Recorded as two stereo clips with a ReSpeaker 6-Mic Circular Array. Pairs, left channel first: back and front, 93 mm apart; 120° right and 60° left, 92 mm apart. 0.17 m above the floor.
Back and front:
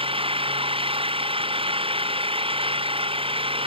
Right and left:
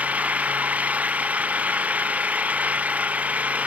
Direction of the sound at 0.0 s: 15° right.